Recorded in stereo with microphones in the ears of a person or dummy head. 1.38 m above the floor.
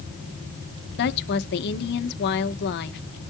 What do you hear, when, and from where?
1.0 s a woman speaking: 65° left (ahead or behind), 1.2 m